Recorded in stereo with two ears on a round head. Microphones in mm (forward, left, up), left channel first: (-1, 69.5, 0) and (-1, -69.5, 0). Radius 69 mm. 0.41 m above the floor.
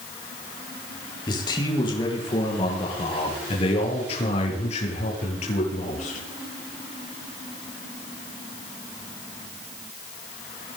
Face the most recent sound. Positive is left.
turn(degrees=50)  # may be behind; listen again after turning